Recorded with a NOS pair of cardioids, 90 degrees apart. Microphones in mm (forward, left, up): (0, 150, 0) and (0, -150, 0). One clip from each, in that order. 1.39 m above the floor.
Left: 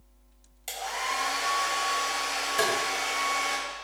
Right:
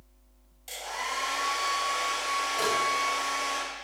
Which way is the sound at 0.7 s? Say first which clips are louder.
Left 3 dB; 65° left.